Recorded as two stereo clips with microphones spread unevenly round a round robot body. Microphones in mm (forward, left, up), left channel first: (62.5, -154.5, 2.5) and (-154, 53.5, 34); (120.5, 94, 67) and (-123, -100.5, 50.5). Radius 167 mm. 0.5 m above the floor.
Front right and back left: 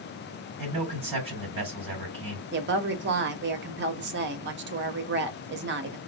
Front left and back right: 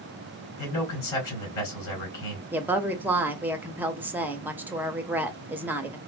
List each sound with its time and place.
0.6 s a man speaking: 60° left, 3.5 m
2.5 s a woman speaking: 145° left, 0.7 m